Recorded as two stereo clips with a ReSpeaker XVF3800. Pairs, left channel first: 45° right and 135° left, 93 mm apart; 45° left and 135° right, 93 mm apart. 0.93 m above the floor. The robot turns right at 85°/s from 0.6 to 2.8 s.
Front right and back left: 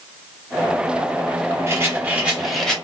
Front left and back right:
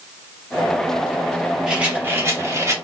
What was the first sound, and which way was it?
A rattle, 150° left.